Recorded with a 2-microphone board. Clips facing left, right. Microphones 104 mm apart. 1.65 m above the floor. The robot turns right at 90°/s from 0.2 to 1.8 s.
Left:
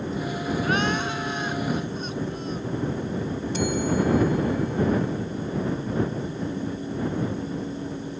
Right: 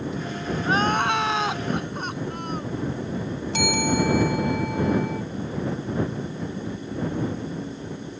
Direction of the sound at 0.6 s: 160° right.